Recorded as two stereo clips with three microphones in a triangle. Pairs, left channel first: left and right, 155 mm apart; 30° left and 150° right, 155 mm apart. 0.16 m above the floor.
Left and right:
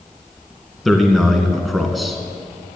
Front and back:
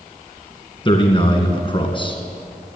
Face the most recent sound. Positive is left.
turn(degrees=0)